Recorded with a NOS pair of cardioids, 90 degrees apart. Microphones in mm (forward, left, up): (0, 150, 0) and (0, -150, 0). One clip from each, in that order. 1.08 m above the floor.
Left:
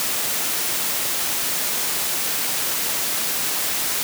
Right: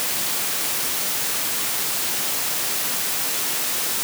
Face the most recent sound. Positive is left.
No sound to turn to.